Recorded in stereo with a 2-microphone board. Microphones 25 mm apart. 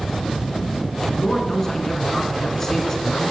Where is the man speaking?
20° left (ahead or behind), 1.9 m.